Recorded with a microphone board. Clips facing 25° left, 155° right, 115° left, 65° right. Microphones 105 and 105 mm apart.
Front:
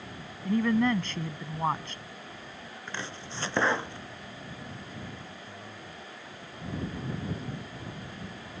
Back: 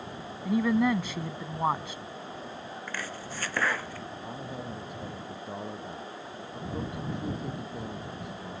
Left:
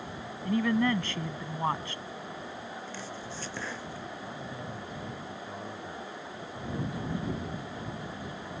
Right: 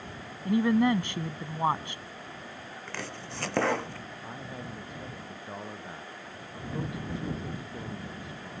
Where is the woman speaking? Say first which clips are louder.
Even, right 3 dB; 95° right.